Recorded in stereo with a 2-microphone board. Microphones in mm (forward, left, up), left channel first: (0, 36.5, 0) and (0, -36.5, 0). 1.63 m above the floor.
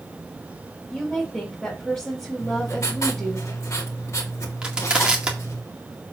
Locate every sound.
0.9 s a woman speaking: 10° left (ahead or behind), 3 m
2.4 s writing: 45° left (ahead or behind), 2 m
4.6 s crushing: 15° right (ahead or behind), 1.9 m